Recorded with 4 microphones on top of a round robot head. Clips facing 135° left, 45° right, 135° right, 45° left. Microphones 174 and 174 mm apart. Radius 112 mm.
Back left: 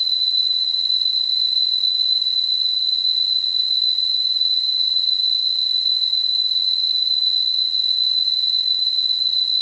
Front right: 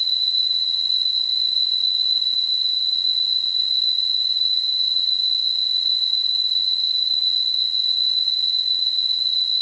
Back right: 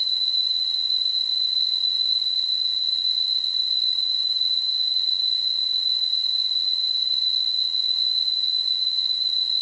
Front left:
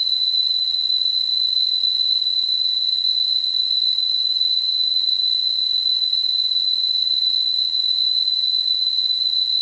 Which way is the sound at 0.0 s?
25° left.